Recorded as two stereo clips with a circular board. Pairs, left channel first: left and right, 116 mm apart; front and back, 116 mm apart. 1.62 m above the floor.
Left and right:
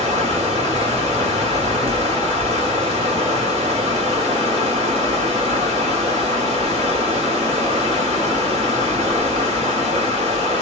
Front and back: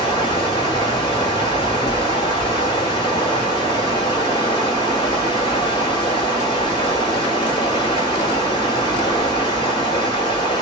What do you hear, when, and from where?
0.0 s running water: 55° right, 1.5 m